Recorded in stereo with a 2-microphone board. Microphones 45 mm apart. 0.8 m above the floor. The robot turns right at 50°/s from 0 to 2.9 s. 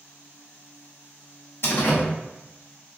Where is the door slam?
60° left (ahead or behind), 0.7 m; by 2.0 s 45° left (ahead or behind), 0.7 m.